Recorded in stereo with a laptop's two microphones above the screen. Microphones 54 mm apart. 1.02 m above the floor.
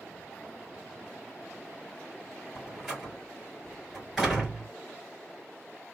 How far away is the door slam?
About 3.5 m.